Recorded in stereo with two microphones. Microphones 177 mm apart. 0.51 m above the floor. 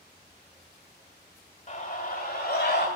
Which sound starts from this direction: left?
A scream, at 1.7 s.